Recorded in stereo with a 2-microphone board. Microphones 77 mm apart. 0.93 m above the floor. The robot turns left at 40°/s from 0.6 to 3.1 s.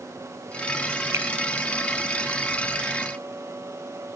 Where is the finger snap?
40° right (ahead or behind); by 1.3 s 35° right (ahead or behind).